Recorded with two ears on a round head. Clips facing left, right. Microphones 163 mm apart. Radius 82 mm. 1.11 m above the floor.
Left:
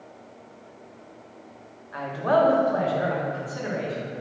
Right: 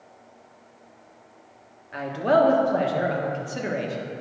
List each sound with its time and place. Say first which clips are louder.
1.9 s a man speaking: right 2 dB; 30° right (ahead or behind), 1.4 m